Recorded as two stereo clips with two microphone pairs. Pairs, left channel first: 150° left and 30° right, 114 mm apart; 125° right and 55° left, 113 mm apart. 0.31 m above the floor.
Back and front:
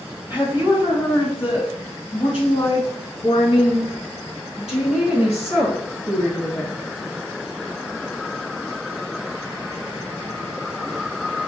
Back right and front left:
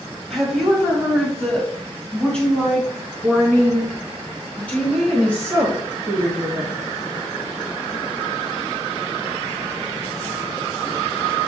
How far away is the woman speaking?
About 1.7 m.